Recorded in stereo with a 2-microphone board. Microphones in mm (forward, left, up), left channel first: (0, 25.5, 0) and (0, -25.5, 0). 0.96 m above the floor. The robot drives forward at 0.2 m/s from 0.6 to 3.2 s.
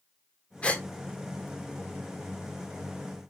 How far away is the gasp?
About 0.7 m.